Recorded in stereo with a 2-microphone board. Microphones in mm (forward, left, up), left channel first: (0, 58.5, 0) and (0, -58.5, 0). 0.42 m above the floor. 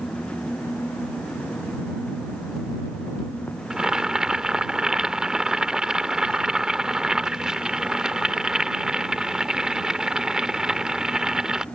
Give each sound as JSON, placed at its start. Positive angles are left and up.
{"t": 3.7, "sound": "boiling", "side_deg": -5}